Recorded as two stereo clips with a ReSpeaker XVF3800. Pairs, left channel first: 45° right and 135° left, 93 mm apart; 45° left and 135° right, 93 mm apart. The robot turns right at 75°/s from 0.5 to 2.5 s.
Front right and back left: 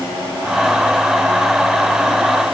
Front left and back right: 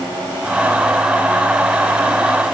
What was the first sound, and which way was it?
Only background noise.